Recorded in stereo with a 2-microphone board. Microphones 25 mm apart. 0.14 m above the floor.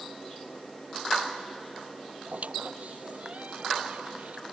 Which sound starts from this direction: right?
A squeak, at 2.3 s.